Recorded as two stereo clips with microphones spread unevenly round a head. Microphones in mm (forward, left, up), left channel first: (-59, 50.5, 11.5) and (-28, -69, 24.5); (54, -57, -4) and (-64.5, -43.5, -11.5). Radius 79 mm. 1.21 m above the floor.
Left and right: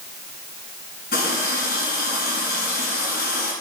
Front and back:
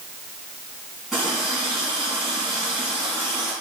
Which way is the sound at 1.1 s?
85° left.